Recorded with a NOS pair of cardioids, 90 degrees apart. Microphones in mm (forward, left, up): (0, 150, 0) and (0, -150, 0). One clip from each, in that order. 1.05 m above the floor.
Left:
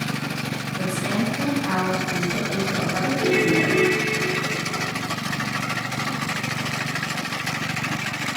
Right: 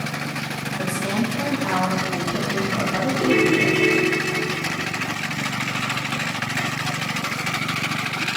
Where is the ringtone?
65° right, 1.5 m.